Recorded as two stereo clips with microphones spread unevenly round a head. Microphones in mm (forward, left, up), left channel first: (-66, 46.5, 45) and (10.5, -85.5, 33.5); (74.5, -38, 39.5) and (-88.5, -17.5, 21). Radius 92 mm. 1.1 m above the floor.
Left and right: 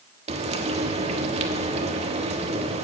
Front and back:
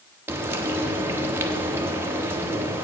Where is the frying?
110° right, 1.0 m.